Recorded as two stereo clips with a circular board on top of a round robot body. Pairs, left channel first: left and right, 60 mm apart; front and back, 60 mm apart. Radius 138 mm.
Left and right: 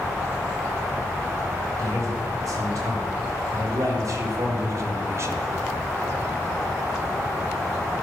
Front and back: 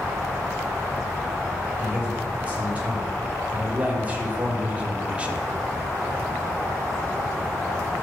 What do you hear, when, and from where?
1.8 s a man speaking: 115° right, 4.5 m